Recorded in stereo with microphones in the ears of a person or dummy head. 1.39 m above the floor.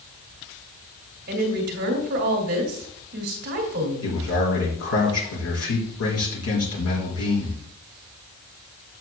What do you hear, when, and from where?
1.3 s a woman speaking: 50° right (ahead or behind), 2.5 m
4.0 s a man speaking: 85° left, 4.5 m